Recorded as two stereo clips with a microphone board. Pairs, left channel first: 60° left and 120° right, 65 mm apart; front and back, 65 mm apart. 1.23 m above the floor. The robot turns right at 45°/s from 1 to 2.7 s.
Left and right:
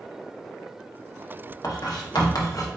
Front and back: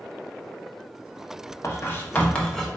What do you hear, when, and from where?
1.6 s writing: 40° left, 0.8 m; by 2.7 s 85° left, 0.8 m